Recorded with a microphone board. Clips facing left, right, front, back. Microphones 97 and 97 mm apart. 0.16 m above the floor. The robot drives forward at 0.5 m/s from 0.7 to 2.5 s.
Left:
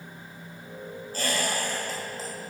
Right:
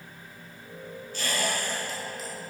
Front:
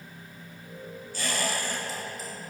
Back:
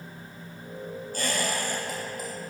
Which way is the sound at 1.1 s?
140° left.